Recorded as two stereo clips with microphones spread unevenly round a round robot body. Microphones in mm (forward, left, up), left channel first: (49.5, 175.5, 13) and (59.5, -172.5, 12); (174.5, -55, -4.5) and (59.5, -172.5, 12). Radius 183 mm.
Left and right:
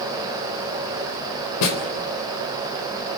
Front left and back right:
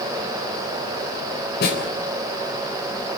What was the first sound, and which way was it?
A snare drum, 65° left.